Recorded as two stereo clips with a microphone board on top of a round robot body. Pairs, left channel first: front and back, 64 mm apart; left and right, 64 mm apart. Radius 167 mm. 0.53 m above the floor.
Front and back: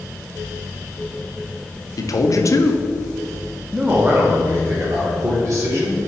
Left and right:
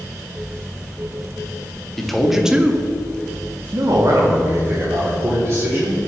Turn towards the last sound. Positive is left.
turn(degrees=-135)